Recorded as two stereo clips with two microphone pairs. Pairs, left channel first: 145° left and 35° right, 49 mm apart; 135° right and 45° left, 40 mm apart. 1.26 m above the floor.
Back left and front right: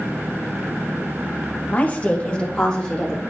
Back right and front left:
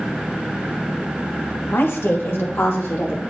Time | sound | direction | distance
1.7 | a woman speaking | 155° right | 1.1 m